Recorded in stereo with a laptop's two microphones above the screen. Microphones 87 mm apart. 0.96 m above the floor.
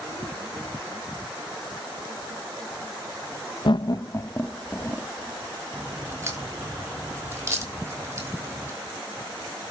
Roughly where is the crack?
Right.